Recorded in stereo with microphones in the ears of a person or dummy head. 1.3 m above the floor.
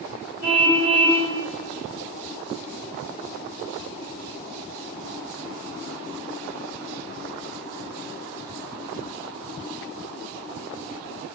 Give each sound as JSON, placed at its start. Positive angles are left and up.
{"t": 0.4, "sound": "a car horn", "side_deg": -55, "distance_m": 2.5}